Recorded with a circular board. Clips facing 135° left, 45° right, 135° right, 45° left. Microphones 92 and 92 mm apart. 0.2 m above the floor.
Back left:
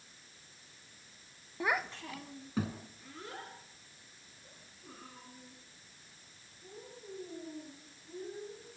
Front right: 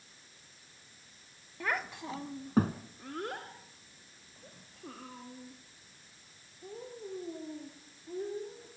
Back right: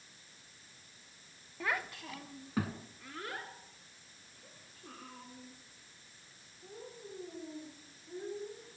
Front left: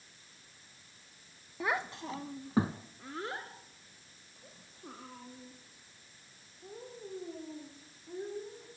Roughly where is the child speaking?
Left.